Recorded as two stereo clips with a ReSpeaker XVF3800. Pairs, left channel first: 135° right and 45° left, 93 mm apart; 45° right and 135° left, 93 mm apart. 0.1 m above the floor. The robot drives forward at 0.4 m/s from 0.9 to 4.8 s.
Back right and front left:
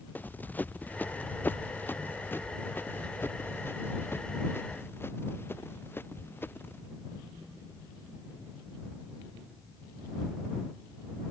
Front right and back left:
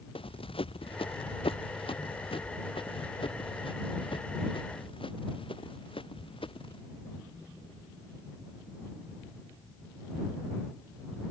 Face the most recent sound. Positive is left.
turn(degrees=-65)